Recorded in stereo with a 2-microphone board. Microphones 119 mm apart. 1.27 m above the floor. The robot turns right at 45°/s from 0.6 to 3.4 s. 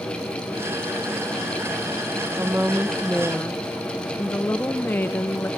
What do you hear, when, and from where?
2.4 s a woman speaking: 25° right, 0.7 m; by 5.5 s 20° left, 0.7 m